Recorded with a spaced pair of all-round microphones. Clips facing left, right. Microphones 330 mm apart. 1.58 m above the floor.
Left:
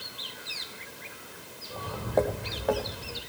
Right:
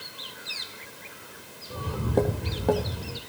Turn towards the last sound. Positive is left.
turn(degrees=-55)  # may be behind; listen again after turning